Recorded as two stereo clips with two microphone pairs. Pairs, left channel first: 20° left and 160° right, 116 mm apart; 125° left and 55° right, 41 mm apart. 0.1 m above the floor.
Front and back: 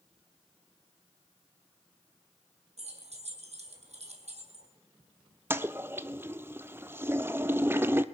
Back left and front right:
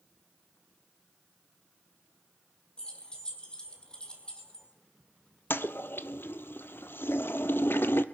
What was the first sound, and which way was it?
Keys jangling, 170° right.